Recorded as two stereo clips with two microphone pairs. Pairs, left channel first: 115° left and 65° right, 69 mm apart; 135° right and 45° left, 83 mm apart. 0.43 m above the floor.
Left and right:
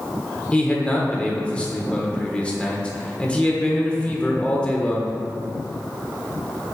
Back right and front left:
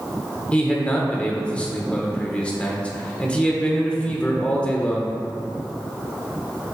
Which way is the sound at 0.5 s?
165° left.